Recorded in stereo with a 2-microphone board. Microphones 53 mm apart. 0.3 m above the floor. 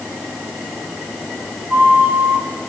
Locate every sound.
1.7 s a flute: 40° right (ahead or behind), 4.5 m